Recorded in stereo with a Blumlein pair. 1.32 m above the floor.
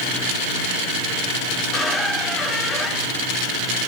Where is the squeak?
5° left, 2.0 m.